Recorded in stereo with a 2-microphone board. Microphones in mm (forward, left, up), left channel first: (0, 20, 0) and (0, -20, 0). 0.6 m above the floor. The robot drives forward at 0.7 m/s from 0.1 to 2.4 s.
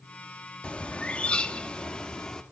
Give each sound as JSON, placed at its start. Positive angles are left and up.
{"t": 0.6, "sound": "a bird", "side_deg": 25, "distance_m": 1.0}